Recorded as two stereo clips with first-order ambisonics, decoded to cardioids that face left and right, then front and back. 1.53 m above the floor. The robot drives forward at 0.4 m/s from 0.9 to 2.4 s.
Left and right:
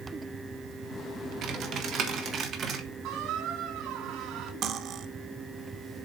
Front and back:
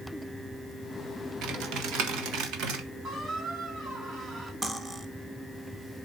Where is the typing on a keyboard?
140° right, 1.2 m; by 2.9 s 150° right, 1.5 m.